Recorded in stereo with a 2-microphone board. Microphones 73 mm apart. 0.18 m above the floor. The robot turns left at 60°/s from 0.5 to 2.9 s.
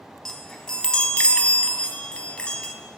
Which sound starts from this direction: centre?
A chime, at 0.2 s.